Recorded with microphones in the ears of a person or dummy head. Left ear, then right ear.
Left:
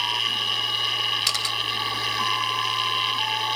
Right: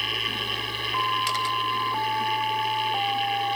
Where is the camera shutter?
40° left (ahead or behind).